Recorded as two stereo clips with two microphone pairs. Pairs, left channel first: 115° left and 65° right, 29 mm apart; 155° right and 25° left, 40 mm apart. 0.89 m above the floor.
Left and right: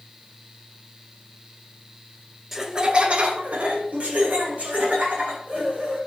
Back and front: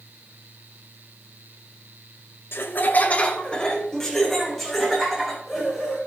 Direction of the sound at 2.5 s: 140° right.